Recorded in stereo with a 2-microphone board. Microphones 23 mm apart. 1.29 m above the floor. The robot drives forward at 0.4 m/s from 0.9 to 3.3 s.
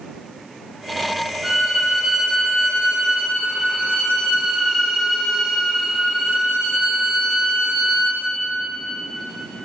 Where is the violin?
30° right (ahead or behind), 2 m; by 8.3 s 40° right (ahead or behind), 1.7 m.